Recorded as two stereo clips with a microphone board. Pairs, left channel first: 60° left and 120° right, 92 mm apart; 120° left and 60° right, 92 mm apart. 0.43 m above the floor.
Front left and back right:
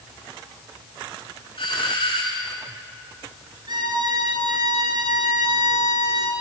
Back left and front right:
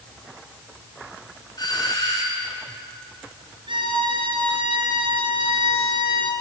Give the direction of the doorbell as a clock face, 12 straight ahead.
9 o'clock.